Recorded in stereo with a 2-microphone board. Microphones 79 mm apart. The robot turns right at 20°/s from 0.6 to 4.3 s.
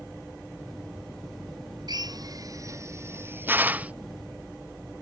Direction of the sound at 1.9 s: 60° right (ahead or behind).